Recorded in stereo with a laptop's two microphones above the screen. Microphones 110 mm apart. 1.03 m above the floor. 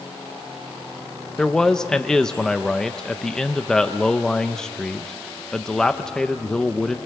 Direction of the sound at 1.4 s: 5° left (ahead or behind).